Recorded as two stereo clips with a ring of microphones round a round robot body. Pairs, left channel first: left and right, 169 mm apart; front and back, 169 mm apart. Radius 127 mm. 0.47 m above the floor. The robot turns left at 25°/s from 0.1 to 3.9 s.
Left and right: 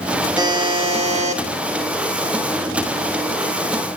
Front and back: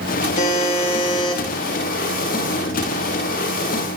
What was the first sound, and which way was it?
A buzzer, 30° right.